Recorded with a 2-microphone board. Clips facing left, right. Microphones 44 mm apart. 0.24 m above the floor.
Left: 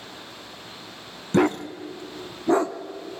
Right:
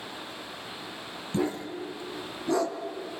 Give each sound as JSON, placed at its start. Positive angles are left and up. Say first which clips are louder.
{"t": 1.3, "sound": "a dog barking", "louder": "left 8 dB", "side_deg": 65, "distance_m": 0.9}